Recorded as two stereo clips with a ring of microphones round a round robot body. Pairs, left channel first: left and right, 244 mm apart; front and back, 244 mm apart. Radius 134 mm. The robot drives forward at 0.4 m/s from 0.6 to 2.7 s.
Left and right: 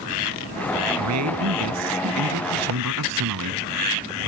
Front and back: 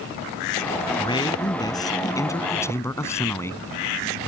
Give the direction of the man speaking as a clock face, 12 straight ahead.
2 o'clock.